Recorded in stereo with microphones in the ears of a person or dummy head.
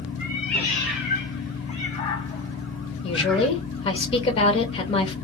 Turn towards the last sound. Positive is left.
turn(degrees=30)  # may be behind; listen again after turning